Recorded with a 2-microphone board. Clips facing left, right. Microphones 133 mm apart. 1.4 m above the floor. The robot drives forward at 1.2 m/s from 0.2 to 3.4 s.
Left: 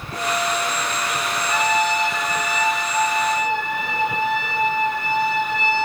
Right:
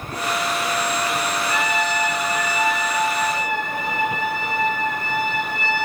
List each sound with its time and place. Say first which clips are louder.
1.5 s a trumpet: left 6 dB; 30° left (ahead or behind), 9 m; by 5.9 s 25° left (ahead or behind), 11 m